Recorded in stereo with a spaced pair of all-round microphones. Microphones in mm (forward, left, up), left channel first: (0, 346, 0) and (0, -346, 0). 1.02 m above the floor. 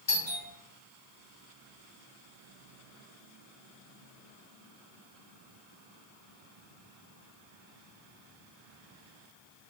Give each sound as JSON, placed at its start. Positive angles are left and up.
{"t": 0.1, "sound": "a doorbell", "side_deg": 40, "distance_m": 1.6}